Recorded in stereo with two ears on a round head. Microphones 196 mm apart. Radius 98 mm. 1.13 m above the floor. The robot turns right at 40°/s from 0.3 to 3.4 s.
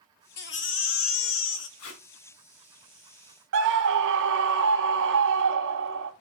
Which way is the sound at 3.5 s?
60° right (ahead or behind).